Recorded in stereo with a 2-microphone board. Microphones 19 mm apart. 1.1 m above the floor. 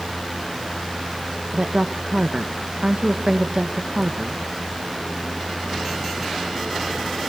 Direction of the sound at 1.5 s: 45° right (ahead or behind).